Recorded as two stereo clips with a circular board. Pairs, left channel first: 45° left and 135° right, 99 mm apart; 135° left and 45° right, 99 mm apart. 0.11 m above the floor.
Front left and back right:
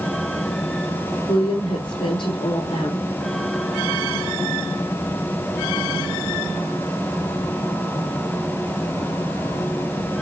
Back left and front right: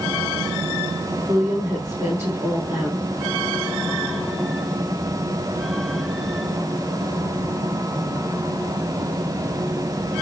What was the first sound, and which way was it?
A woman speaking, 25° left.